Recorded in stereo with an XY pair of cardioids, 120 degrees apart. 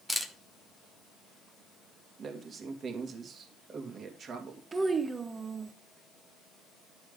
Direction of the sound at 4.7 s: 25° right.